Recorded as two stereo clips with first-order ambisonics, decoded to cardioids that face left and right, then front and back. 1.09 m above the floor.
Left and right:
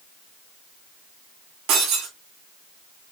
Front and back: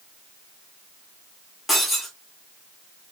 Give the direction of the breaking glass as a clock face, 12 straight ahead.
3 o'clock.